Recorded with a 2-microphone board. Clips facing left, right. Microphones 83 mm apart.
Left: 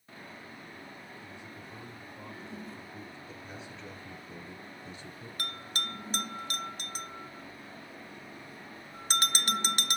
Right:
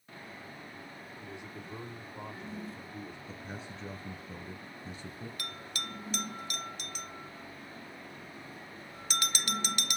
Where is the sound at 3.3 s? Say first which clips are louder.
Right 1 dB; 40° right (ahead or behind), 1.6 m.